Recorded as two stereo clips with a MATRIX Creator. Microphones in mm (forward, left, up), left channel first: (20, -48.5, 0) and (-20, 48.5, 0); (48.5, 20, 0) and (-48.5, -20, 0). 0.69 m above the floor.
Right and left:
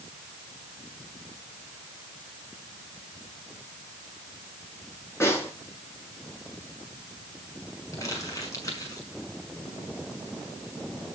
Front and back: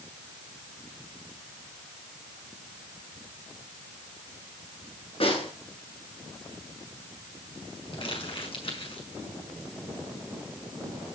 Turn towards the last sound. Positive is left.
turn(degrees=-10)